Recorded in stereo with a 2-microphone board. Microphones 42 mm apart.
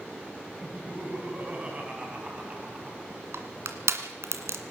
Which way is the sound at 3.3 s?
80° right.